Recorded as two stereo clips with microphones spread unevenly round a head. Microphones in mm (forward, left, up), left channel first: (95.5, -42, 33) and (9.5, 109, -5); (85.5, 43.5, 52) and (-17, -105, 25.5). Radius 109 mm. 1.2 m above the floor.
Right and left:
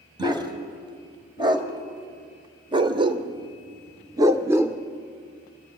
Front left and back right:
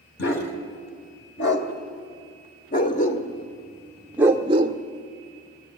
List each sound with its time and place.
0.2 s a dog barking: 50° left, 2.5 m; by 4.8 s 145° right, 0.9 m